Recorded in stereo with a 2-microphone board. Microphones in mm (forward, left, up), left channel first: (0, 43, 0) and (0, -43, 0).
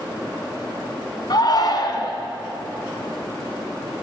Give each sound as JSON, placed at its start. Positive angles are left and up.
{"t": 1.3, "sound": "a shout", "side_deg": 55, "distance_m": 1.7}